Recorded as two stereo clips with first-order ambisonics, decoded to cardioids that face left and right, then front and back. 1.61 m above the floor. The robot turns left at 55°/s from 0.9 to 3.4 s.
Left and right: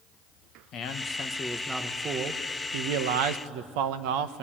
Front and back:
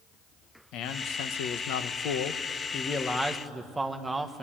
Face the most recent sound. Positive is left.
turn(degrees=-100)